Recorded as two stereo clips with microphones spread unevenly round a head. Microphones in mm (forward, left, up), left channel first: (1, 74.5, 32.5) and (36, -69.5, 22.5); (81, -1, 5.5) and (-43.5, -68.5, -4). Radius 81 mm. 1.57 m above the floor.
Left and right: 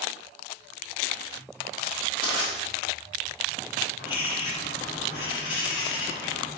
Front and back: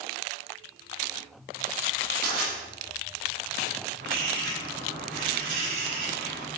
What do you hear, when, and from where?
2.2 s crushing: 165° left, 3.5 m
4.0 s a bird: 165° left, 2.5 m